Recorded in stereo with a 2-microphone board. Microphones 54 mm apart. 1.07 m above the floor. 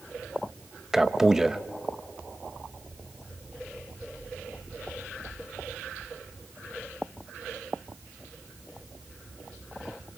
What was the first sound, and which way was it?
A man speaking, 10° right (ahead or behind).